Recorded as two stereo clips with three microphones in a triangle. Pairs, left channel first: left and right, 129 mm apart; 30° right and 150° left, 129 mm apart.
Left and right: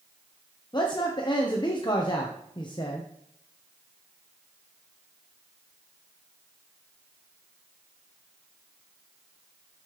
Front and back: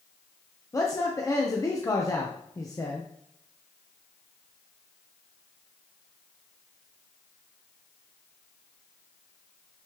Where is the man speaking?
35° left, 0.8 m.